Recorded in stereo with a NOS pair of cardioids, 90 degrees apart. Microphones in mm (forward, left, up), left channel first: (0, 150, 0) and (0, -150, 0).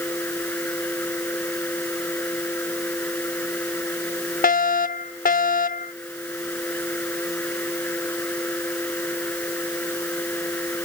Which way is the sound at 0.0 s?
5° left.